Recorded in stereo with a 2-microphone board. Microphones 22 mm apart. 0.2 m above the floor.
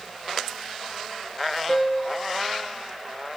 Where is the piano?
20° left (ahead or behind), 0.7 m.